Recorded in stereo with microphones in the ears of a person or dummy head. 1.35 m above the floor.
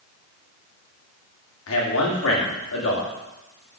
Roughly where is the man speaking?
Left.